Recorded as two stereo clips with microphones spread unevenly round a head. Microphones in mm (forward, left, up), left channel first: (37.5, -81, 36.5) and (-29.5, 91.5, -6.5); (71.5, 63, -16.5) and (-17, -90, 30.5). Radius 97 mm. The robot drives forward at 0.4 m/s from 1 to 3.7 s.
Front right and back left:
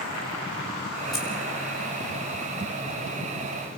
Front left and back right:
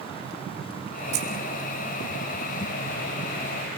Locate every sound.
1.1 s keys jangling: 155° right, 4 m